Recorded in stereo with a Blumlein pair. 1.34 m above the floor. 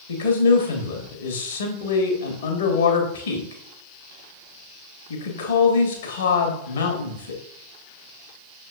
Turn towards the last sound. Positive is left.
turn(degrees=65)